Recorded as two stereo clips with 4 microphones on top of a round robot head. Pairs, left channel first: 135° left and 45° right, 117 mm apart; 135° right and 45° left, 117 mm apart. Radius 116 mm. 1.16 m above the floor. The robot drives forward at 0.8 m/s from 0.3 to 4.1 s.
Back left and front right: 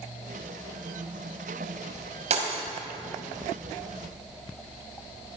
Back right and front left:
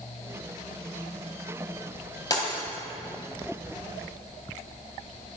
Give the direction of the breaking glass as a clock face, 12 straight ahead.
2 o'clock.